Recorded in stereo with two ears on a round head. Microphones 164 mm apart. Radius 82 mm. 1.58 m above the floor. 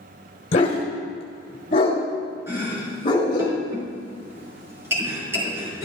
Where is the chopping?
15° right (ahead or behind), 4.5 m.